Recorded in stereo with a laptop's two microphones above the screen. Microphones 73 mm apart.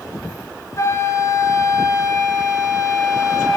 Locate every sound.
0.8 s a flute: 45° left (ahead or behind), 2 m